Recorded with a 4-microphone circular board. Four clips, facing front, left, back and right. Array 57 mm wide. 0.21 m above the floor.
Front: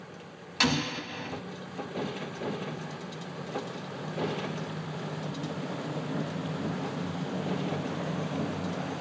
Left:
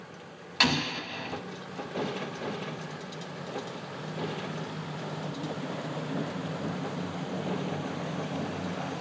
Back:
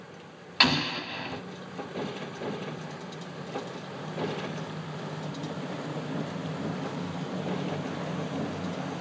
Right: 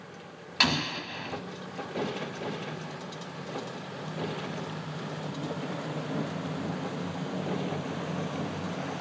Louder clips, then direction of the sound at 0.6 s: Left 1 dB, back 2 dB; straight behind.